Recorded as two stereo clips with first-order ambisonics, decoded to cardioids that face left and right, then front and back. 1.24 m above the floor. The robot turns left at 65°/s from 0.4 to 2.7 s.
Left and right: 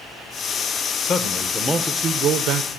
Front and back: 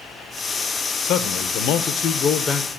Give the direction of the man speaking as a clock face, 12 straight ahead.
11 o'clock.